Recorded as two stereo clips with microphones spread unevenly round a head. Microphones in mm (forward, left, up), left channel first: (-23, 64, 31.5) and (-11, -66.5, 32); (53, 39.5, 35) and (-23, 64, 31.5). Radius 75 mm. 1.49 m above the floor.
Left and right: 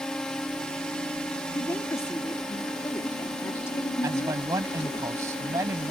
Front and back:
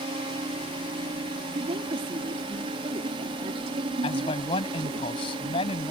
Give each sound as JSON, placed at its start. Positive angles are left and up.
{"t": 0.0, "sound": "a drone", "azimuth_deg": 180}
{"t": 1.6, "sound": "a woman speaking", "azimuth_deg": 165}
{"t": 4.0, "sound": "a man speaking", "azimuth_deg": -15}